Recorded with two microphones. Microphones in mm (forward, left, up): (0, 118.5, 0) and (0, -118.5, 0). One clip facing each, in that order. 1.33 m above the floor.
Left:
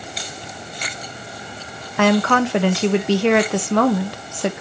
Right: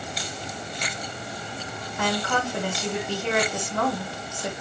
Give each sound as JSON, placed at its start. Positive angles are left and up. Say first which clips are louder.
{"t": 2.0, "sound": "a woman speaking", "louder": "left 11 dB", "side_deg": 80, "distance_m": 1.2}